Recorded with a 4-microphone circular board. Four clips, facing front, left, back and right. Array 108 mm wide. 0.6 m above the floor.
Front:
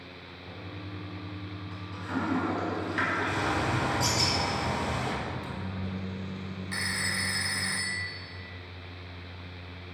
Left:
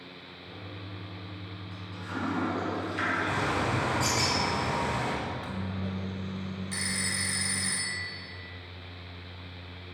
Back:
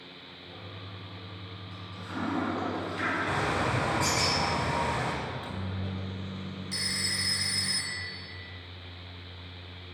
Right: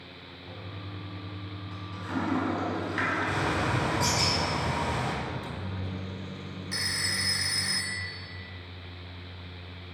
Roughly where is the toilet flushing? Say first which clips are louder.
Right 1 dB, front 4 dB; ahead right.